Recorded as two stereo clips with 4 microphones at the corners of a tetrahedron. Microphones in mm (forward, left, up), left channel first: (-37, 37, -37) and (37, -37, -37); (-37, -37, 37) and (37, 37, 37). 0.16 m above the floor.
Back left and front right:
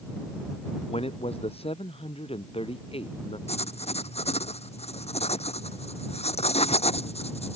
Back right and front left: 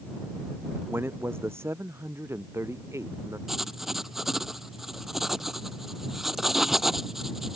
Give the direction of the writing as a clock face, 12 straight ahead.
8 o'clock.